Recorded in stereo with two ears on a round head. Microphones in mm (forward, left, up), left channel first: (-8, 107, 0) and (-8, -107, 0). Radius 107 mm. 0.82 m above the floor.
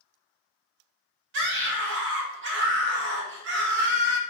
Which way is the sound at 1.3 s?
50° right (ahead or behind).